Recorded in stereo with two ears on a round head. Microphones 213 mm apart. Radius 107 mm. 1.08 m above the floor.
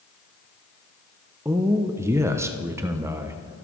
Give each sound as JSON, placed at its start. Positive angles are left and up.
{"t": 1.4, "sound": "a man speaking", "side_deg": -10, "distance_m": 0.6}